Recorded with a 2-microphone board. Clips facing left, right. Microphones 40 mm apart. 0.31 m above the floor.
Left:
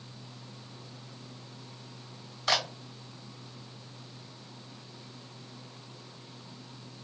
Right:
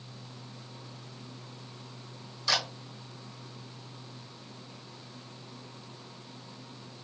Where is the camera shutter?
50° left (ahead or behind), 1.7 m.